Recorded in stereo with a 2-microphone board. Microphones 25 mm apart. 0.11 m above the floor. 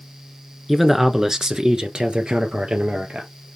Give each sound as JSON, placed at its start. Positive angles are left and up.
{"t": 0.7, "sound": "a man speaking", "side_deg": -5, "distance_m": 1.3}